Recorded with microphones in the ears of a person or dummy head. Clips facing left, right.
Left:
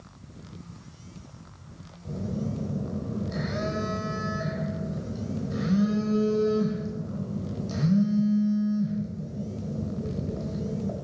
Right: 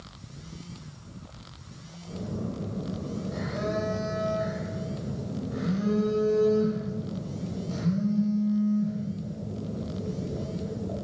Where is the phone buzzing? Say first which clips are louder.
Left 2 dB; 60° left (ahead or behind), 1.7 m.